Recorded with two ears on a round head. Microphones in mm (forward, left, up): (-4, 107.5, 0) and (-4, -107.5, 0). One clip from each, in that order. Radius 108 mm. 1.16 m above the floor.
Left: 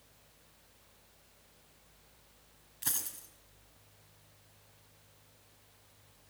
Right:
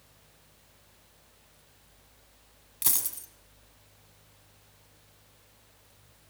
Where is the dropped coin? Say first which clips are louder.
Right 6 dB; 45° right (ahead or behind), 4 m.